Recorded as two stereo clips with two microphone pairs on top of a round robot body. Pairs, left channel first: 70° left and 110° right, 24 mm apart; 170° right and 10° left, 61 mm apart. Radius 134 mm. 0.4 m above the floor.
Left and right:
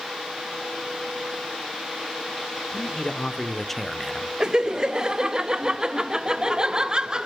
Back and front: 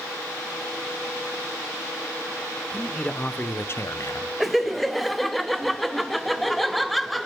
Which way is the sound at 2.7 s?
105° left.